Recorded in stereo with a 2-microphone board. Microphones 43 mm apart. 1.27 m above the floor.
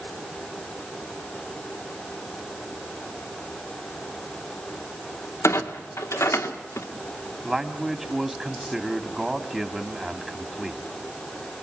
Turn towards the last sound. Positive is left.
turn(degrees=-10)  # may be behind; listen again after turning